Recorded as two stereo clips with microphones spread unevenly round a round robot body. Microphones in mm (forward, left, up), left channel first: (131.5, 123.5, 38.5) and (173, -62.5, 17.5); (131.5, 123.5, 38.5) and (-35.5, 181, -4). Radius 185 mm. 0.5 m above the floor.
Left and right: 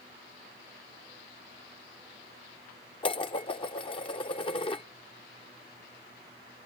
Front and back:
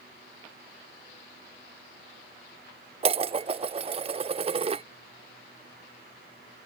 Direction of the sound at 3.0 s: 165° left.